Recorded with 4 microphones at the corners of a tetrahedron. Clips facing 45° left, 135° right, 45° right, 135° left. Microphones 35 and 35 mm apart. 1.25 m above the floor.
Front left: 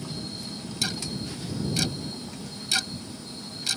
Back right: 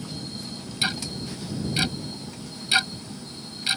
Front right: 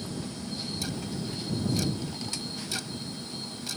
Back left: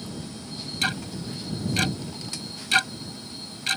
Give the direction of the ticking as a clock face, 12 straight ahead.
7 o'clock.